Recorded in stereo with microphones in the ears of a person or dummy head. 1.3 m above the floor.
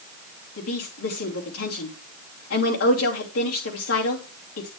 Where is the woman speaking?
80° left, 3 m.